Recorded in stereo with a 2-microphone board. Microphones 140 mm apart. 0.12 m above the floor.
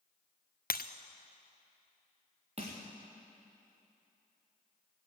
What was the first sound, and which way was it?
Breaking glass, 85° left.